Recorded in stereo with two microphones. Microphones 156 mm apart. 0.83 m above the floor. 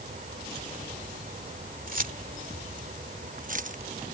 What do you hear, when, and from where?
1.9 s keys jangling: 65° right (ahead or behind); by 3.8 s 55° right (ahead or behind)